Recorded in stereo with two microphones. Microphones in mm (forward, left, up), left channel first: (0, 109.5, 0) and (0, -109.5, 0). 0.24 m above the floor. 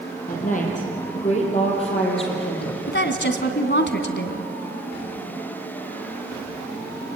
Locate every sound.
0.3 s a woman speaking: 40° left (ahead or behind), 6.5 m; by 2.8 s 25° left (ahead or behind), 6.5 m
2.9 s a woman speaking: 55° left (ahead or behind), 1.9 m